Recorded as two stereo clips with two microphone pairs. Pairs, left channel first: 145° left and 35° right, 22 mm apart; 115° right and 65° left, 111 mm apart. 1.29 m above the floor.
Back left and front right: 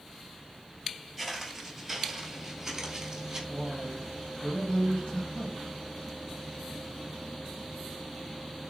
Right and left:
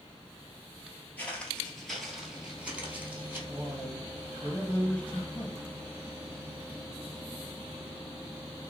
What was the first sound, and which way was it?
Footsteps, 135° right.